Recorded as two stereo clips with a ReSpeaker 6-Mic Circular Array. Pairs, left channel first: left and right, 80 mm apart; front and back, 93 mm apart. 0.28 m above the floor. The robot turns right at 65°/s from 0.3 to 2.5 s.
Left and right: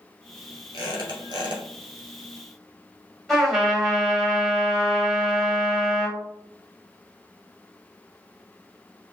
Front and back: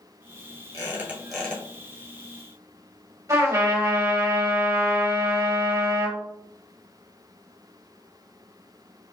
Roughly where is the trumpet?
Behind.